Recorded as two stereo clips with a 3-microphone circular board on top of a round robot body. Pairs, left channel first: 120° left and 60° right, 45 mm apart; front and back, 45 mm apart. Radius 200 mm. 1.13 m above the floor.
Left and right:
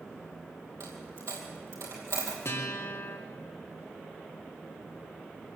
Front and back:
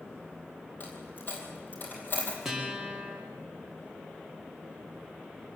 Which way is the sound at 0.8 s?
45° right.